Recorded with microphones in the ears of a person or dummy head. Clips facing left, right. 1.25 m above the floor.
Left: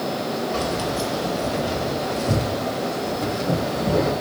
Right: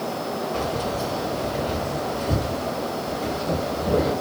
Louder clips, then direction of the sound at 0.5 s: Left 2 dB; 70° left (ahead or behind).